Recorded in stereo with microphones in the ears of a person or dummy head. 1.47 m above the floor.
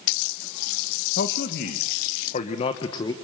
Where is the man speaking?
60° left (ahead or behind), 1.8 m; by 3.1 s 20° left (ahead or behind), 1.4 m.